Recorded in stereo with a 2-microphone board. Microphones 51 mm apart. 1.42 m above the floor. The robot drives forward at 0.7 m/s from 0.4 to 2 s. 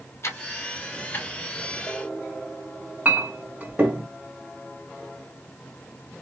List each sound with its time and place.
0.2 s ticking: 60° left (ahead or behind), 0.8 m; by 1.3 s 35° left (ahead or behind), 1.2 m
3.0 s a clink: 30° right (ahead or behind), 1.3 m